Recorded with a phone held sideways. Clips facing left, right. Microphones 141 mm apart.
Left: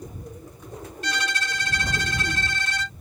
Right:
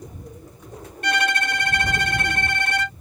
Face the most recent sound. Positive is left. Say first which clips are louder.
# right 7 dB
turn(degrees=-60)  # may be behind; listen again after turning